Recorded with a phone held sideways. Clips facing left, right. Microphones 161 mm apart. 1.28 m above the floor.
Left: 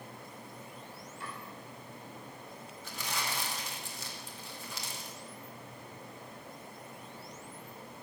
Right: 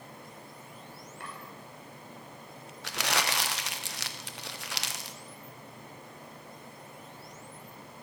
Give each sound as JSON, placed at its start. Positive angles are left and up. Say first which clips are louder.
{"t": 1.2, "sound": "chopping", "louder": "even", "side_deg": -65, "distance_m": 5.5}
{"t": 2.8, "sound": "crumpling", "louder": "right 7 dB", "side_deg": -75, "distance_m": 0.8}